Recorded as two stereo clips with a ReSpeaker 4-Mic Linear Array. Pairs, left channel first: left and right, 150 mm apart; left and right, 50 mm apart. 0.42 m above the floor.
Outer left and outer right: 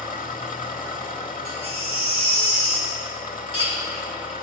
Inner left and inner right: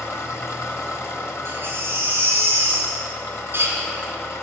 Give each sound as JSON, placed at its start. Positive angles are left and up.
{"t": 0.0, "sound": "an engine running", "side_deg": 65, "distance_m": 1.0}
{"t": 1.4, "sound": "a baby crying", "side_deg": -45, "distance_m": 2.0}